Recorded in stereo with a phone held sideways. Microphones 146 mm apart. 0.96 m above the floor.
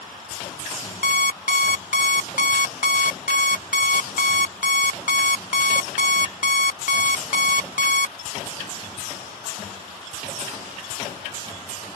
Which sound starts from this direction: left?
An alarm clock, at 1.0 s.